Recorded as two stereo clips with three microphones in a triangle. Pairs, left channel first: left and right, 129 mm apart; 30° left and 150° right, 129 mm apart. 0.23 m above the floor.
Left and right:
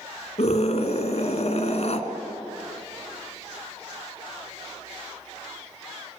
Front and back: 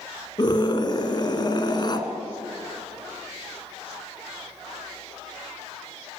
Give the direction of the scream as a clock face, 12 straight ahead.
9 o'clock.